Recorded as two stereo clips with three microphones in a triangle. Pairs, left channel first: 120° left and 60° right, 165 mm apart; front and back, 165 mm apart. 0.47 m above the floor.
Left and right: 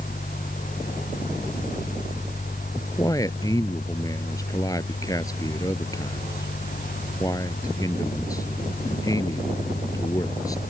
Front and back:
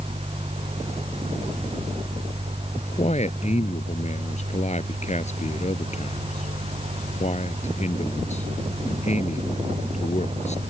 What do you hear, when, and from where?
2.8 s a man speaking: 50° left